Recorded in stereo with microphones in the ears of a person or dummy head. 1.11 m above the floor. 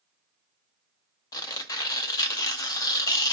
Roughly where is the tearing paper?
Left.